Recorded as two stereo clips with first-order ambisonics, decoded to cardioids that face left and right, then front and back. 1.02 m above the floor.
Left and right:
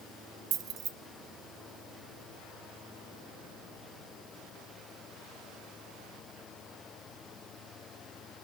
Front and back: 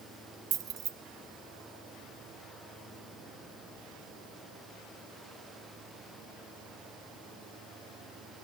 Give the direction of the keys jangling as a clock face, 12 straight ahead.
5 o'clock.